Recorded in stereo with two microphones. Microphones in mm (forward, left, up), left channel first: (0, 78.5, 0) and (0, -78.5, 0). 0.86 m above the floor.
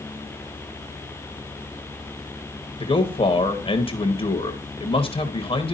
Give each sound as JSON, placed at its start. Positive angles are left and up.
{"t": 2.8, "sound": "a man speaking", "side_deg": 35, "distance_m": 1.0}